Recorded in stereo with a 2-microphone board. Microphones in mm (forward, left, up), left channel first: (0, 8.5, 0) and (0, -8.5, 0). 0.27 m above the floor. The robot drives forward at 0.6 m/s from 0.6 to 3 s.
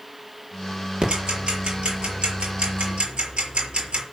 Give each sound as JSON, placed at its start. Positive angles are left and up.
{"t": 1.0, "sound": "ticking", "side_deg": -70, "distance_m": 6.0}